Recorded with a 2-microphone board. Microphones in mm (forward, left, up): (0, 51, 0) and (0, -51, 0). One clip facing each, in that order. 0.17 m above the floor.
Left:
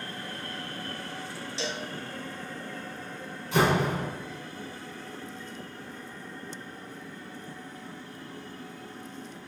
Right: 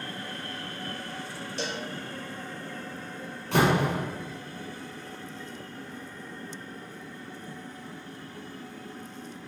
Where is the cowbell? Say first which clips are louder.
Right 1 dB; 55° right (ahead or behind), 1.2 m.